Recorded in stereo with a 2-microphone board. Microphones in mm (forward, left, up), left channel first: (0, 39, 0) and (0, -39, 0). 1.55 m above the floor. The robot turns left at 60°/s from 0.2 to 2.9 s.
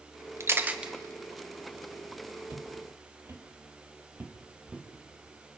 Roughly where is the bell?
No bell in this recording.